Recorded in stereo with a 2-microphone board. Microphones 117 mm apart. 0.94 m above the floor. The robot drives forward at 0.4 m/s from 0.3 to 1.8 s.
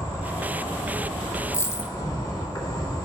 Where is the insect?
25° left (ahead or behind), 2.5 m; by 3.0 s 30° left (ahead or behind), 1.8 m.